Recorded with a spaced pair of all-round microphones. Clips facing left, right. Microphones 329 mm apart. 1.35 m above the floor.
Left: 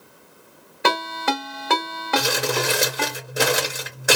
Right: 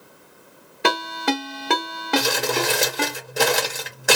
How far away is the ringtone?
About 1.3 m.